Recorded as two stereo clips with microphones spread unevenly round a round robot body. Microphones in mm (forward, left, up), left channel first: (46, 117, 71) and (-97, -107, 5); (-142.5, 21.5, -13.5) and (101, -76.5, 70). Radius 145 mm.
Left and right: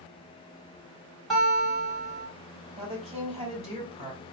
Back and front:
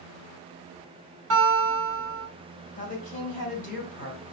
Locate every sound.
1.3 s a guitar: 50° right, 1.8 m
2.8 s a woman speaking: 170° right, 2 m